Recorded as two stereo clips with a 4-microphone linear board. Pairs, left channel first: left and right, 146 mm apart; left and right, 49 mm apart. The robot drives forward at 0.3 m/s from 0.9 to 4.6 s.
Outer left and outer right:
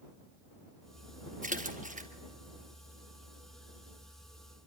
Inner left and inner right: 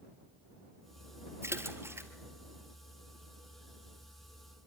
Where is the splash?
70° right (ahead or behind), 2 m; by 2.1 s 65° right (ahead or behind), 2 m.